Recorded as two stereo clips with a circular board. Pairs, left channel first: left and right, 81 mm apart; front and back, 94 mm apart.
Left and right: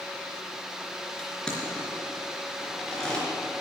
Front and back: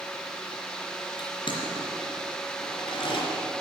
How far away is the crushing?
About 3.5 m.